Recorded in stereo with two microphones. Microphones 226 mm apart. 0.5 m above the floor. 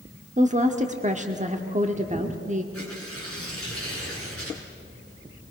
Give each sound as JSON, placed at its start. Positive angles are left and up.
{"t": 0.4, "sound": "a woman speaking", "side_deg": -35, "distance_m": 1.2}
{"t": 2.7, "sound": "tearing paper", "side_deg": -80, "distance_m": 7.0}